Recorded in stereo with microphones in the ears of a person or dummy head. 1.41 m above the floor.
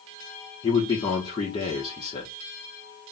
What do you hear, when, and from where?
0.6 s a man speaking: 20° left (ahead or behind), 0.8 m